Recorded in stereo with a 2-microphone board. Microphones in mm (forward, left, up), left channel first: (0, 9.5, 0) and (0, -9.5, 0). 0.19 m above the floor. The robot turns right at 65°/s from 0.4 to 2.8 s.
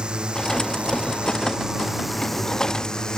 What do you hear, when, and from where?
0.0 s a drone: 55° right (ahead or behind); by 3.2 s 40° left (ahead or behind)